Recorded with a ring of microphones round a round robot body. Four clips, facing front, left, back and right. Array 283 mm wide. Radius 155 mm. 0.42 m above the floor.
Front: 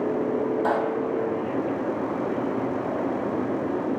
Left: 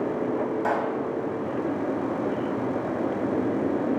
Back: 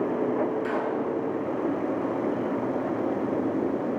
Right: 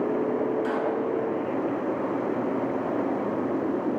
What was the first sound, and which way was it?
A pop, 35° left.